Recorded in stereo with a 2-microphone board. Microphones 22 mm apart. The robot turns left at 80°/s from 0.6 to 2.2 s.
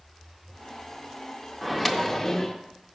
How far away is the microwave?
About 0.5 m.